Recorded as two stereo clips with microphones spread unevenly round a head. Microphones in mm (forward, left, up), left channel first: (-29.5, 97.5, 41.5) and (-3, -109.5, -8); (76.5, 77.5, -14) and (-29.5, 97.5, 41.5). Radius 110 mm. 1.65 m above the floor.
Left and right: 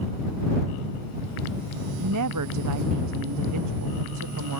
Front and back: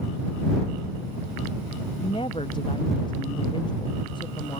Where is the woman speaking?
85° right.